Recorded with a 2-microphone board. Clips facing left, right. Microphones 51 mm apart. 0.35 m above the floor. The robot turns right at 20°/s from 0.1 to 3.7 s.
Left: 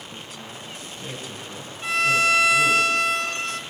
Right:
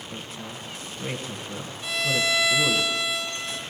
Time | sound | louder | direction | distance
0.1 | a woman speaking | right 1 dB | 30° right (ahead or behind) | 1.2 m
1.8 | a violin | left 5 dB | 55° left | 0.6 m